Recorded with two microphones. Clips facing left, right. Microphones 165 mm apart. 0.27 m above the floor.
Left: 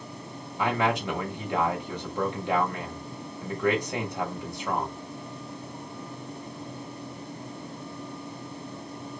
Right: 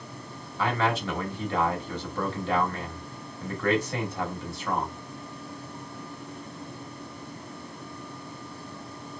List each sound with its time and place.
0.6 s a man speaking: 15° left (ahead or behind), 1.0 m